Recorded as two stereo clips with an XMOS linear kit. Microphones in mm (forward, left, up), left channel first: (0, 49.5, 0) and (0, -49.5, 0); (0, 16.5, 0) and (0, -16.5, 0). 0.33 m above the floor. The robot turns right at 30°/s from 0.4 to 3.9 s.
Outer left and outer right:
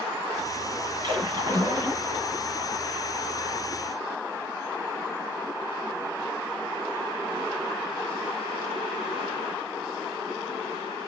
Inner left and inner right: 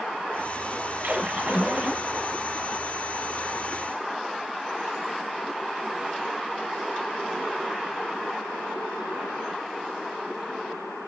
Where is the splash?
65° right, 1.9 m; by 2.1 s 35° right, 1.9 m.